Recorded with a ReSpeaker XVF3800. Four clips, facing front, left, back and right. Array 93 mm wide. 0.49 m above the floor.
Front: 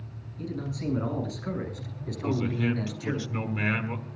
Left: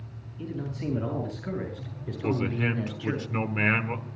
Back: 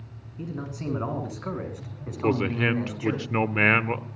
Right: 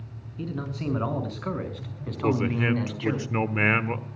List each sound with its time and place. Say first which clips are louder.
0.4 s a man speaking: right 2 dB, even; 120° right, 6.5 m; by 3.2 s 125° right, 4.5 m
2.2 s a man speaking: right 3 dB, back 4 dB; 165° right, 1.1 m